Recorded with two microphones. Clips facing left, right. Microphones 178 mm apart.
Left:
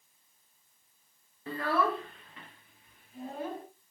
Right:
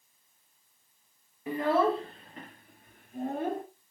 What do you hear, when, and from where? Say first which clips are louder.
1.5 s a child speaking: right 4 dB; 15° right (ahead or behind), 0.7 m; by 3.6 s 55° right (ahead or behind), 1.5 m